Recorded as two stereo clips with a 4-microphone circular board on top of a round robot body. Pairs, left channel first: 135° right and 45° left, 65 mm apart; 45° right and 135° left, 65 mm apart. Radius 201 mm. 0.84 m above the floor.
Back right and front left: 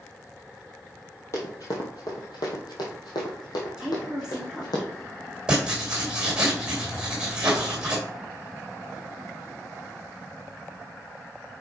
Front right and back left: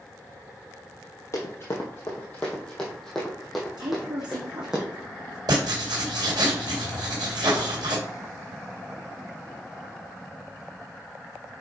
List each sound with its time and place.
1.3 s running footsteps: 95° right, 1.5 m; by 4.8 s 145° right, 3 m
3.8 s a woman speaking: 130° left, 2 m
5.5 s writing: 125° left, 2.5 m